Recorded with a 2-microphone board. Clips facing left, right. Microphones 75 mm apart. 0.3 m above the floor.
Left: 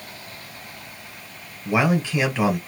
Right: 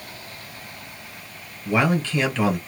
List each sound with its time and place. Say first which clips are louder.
1.6 s a man speaking: even; 15° left (ahead or behind), 1.4 m